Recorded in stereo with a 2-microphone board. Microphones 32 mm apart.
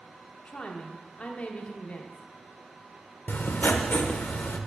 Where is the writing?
80° left, 0.6 m.